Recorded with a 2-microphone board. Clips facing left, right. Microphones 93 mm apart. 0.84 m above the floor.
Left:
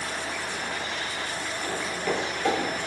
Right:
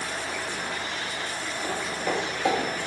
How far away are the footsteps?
About 0.8 m.